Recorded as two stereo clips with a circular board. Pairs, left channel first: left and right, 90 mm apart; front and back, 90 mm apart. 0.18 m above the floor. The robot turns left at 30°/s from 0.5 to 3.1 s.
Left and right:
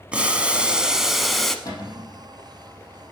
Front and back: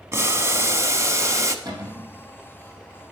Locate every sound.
0.1 s boiling: 155° right, 0.6 m; by 1.6 s 175° left, 0.6 m
1.6 s a cupboard door: 140° left, 3.5 m; by 2.1 s 125° left, 3.5 m